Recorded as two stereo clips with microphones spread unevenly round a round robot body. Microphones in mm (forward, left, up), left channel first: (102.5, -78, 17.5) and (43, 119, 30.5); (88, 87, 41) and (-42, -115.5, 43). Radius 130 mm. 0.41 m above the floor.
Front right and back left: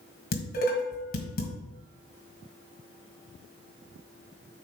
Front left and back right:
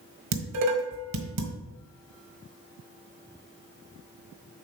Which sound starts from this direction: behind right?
Dishes clattering, at 0.3 s.